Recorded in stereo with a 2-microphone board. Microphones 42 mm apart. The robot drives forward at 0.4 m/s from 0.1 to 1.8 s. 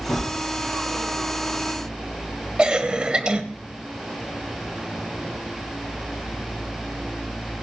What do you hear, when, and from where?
0.1 s a gunshot: 60° left (ahead or behind), 5.5 m
2.6 s a cough: 20° right (ahead or behind), 0.9 m